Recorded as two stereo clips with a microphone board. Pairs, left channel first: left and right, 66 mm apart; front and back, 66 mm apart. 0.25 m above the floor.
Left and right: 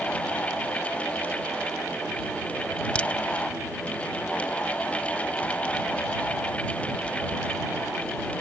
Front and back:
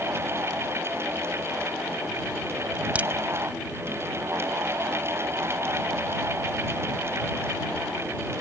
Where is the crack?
140° left.